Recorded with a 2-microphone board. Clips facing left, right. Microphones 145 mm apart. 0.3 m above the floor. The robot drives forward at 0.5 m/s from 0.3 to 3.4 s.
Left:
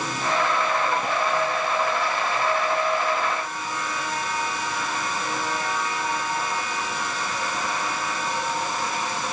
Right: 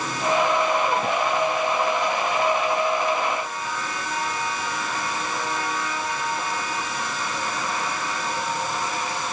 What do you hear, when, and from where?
Only background noise.